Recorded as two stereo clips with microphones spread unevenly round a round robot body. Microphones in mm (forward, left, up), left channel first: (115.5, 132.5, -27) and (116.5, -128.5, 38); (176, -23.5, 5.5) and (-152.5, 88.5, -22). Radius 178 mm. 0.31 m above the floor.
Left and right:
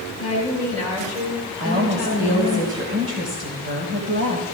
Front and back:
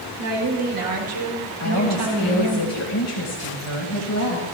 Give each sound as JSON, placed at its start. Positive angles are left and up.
{"t": 0.2, "sound": "a woman speaking", "azimuth_deg": -160, "distance_m": 4.5}
{"t": 1.6, "sound": "a woman speaking", "azimuth_deg": -50, "distance_m": 1.9}